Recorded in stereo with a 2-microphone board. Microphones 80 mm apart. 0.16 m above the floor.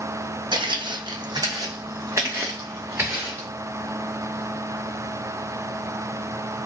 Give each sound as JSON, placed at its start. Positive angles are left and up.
{"t": 0.5, "sound": "footsteps", "side_deg": -80, "distance_m": 0.5}